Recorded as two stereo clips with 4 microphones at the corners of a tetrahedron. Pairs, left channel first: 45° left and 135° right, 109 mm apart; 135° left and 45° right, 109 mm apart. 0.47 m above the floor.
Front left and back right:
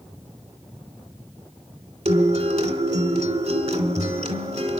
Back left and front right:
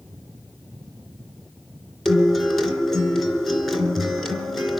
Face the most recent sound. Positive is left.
turn(degrees=-135)